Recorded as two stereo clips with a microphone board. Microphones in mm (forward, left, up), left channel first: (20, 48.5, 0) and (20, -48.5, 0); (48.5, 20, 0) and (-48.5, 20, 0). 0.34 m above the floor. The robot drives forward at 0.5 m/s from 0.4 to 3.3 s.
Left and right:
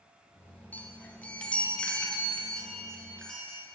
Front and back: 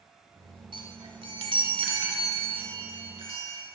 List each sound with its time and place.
0.7 s a chime: 160° left, 1.0 m; by 3.6 s 170° left, 2 m